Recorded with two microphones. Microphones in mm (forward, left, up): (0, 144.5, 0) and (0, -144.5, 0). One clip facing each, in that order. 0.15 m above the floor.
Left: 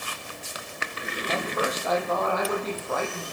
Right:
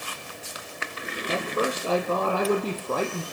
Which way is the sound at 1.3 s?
30° right (ahead or behind).